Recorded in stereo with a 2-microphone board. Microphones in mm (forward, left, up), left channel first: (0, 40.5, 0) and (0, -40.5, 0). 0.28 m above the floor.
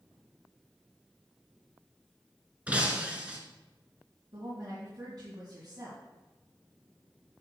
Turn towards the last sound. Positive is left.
turn(degrees=-60)  # may be behind; listen again after turning